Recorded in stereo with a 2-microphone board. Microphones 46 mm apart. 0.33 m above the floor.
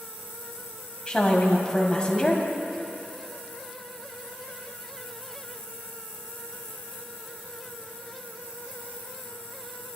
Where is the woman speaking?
20° left (ahead or behind), 2.5 m.